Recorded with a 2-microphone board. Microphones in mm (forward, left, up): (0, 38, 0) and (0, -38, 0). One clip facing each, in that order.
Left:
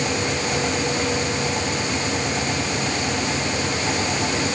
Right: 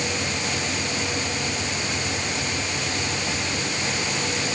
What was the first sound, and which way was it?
Only background noise.